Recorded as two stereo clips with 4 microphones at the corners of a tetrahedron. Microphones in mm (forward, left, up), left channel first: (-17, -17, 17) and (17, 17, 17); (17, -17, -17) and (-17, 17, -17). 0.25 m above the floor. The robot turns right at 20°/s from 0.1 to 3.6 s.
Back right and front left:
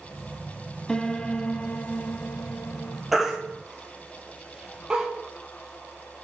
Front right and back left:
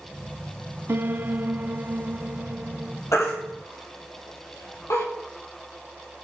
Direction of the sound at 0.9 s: 150° left.